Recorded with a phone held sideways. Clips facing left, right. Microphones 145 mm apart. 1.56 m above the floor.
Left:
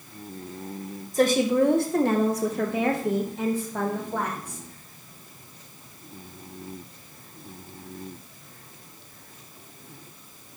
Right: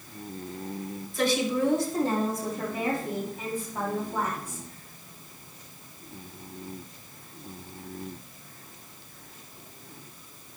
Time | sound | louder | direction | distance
1.1 | a woman speaking | left 6 dB | 40° left (ahead or behind) | 1.0 m